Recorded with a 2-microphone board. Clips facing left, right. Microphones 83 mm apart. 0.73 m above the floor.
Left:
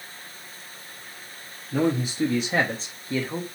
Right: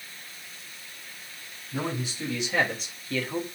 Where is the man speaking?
50° left (ahead or behind), 0.9 m; by 3.5 s 10° left (ahead or behind), 0.7 m.